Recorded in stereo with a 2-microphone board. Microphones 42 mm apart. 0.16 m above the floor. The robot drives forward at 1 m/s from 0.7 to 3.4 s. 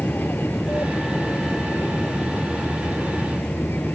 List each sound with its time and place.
0.0 s an aircraft: 65° left (ahead or behind)